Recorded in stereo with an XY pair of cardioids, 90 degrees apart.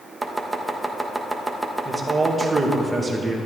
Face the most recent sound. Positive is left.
turn(degrees=-25)